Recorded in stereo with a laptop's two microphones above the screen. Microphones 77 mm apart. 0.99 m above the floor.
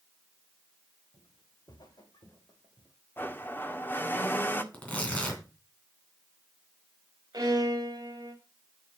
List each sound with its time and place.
1.1 s footsteps: 65° left (ahead or behind), 2.5 m; by 2.9 s 45° left (ahead or behind), 2 m
3.2 s a blender: 25° left (ahead or behind), 1.4 m
4.7 s tearing paper: 20° left (ahead or behind), 2.5 m
7.3 s a violin: 55° right (ahead or behind), 2.5 m